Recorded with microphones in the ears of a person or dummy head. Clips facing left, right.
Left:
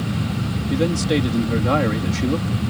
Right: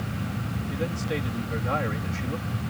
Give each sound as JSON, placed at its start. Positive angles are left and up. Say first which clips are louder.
{"t": 0.7, "sound": "a man speaking", "louder": "left 11 dB", "side_deg": 70}